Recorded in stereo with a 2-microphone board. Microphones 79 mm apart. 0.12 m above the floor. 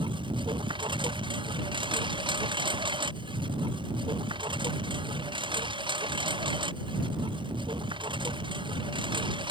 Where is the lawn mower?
90° right.